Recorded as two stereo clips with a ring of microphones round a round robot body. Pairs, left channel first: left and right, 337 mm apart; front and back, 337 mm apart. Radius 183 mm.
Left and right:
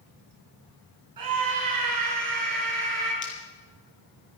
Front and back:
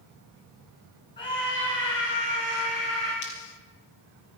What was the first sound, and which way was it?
A scream, 75° right.